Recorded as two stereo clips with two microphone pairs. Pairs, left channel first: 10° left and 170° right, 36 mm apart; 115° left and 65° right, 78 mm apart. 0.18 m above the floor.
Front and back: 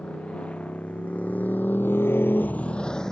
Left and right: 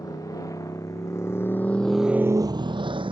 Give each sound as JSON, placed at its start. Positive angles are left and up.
{"t": 0.0, "sound": "a motorcycle", "azimuth_deg": 70}